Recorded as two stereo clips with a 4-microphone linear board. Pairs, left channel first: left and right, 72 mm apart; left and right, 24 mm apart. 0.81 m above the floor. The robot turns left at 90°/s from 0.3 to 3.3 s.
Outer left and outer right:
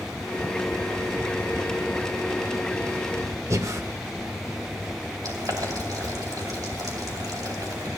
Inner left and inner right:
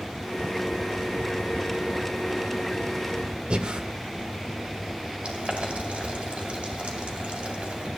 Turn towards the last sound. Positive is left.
turn(degrees=-65)  # may be behind; listen again after turning